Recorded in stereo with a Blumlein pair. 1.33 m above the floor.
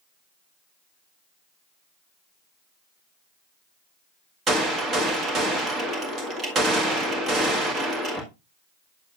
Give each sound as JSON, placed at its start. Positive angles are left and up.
{"t": 4.5, "sound": "a gunshot", "azimuth_deg": -25, "distance_m": 1.7}